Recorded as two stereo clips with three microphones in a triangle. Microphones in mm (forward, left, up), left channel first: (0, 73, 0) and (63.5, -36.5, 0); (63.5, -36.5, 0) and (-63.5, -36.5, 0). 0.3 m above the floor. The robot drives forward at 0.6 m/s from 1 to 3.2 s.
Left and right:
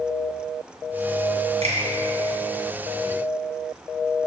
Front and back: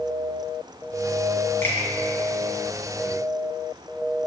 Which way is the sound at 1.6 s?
70° right.